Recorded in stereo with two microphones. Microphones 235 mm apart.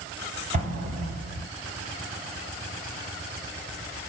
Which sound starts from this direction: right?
An explosion, at 0.5 s.